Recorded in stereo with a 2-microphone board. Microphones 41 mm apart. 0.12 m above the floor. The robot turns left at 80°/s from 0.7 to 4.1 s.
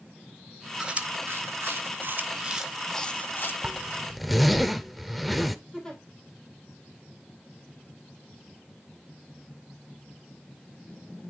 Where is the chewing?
20° right (ahead or behind), 0.7 m; by 3.5 s 55° left (ahead or behind), 0.7 m.